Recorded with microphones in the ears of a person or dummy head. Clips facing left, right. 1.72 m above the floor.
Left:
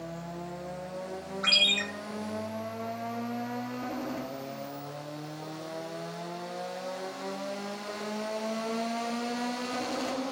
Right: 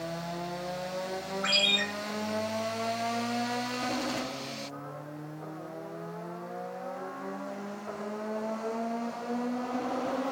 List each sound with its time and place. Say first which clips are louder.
1.4 s a ringtone: right 3 dB; 40° left (ahead or behind), 1.3 m